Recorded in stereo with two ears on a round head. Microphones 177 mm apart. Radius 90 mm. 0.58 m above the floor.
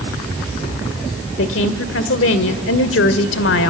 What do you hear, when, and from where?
1.4 s a woman speaking: 70° left (ahead or behind), 1.7 m